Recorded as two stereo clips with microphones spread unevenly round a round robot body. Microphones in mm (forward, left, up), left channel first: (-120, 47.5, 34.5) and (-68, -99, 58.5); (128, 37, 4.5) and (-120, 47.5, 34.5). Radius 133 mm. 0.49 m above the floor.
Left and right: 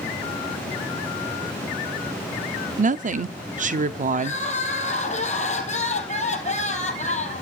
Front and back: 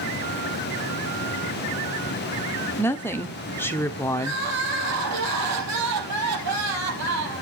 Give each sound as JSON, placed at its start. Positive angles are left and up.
{"t": 2.8, "sound": "a woman speaking", "azimuth_deg": -70, "distance_m": 0.9}
{"t": 4.2, "sound": "crying", "azimuth_deg": 155, "distance_m": 3.5}